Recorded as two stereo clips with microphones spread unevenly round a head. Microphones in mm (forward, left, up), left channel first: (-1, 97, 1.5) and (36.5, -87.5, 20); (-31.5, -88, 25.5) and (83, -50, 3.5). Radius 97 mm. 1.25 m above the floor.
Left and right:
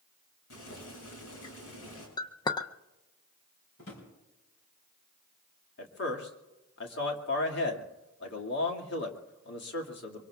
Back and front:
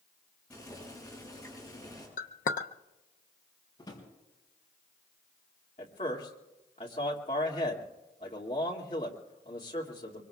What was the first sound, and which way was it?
Boiling, 115° left.